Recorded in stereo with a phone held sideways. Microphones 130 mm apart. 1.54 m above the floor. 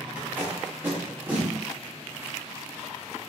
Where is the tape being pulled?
15° right (ahead or behind), 0.9 m.